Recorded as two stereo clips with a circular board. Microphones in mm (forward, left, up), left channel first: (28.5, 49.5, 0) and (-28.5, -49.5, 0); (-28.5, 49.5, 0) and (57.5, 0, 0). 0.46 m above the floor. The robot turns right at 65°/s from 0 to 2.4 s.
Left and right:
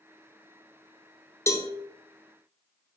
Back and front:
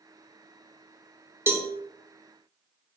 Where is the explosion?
I don't hear an explosion.